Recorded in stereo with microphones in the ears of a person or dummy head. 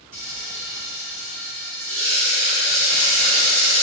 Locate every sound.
0.1 s frying: 45° right (ahead or behind), 1.2 m